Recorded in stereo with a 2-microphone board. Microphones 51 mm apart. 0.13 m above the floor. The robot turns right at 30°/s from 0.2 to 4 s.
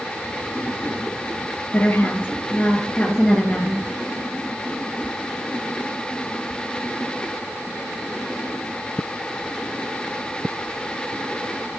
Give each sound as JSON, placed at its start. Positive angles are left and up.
{"t": 1.7, "sound": "a woman speaking", "azimuth_deg": 110, "distance_m": 2.5}